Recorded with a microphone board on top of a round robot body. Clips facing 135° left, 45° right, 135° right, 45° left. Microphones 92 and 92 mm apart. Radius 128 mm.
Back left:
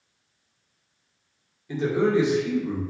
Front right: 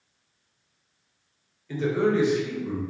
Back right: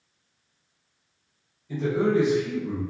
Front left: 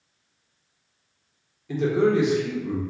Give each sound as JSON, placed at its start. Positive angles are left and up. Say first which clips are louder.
{"t": 1.7, "sound": "a man speaking", "louder": "back left 1 dB, front left 3 dB", "azimuth_deg": 65, "distance_m": 1.8}